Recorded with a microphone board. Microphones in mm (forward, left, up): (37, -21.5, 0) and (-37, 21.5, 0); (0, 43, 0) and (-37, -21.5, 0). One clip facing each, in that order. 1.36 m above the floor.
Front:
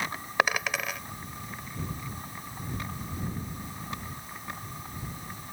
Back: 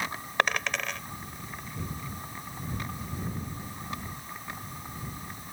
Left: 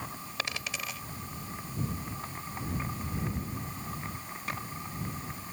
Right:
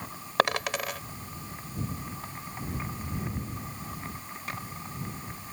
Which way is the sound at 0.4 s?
110° right.